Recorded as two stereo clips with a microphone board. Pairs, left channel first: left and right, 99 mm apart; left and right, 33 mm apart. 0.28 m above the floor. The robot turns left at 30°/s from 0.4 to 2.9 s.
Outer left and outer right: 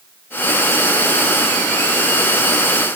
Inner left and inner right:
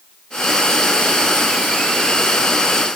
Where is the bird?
No bird in this recording.